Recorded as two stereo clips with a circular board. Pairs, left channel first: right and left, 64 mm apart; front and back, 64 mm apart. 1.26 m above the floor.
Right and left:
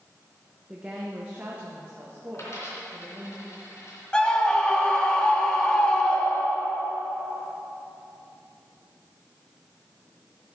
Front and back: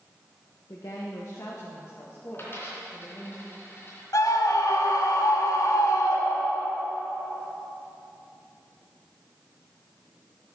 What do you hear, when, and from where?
0.7 s a woman speaking: 15° left, 1.0 m; by 3.3 s 40° left, 2.5 m
2.3 s a dropped coin: 50° right, 3 m
4.1 s a scream: 15° right, 1.8 m